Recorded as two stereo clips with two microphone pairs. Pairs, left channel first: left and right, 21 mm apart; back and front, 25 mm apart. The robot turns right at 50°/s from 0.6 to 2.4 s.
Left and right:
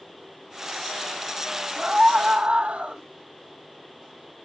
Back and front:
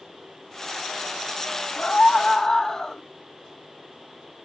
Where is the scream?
155° right, 1.8 m; by 3.0 s 120° right, 1.8 m.